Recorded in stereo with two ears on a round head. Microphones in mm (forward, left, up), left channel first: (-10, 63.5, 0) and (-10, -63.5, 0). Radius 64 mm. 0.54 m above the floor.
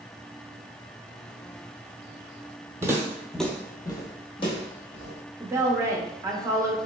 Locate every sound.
2.8 s footsteps: 20° right (ahead or behind), 0.7 m; by 5.2 s 40° left (ahead or behind), 1.2 m
5.4 s a woman speaking: 20° right (ahead or behind), 0.6 m